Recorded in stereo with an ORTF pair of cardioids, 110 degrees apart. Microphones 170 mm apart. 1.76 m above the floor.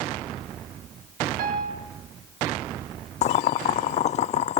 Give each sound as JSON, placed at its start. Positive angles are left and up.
{"t": 1.4, "sound": "a piano", "azimuth_deg": -65, "distance_m": 3.5}
{"t": 3.2, "sound": "boiling", "azimuth_deg": 45, "distance_m": 0.7}